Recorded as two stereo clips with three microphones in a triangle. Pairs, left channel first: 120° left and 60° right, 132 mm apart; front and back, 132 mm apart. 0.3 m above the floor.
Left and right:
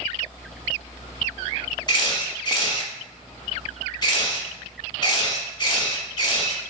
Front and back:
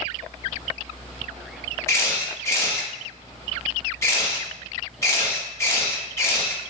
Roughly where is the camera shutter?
Ahead left.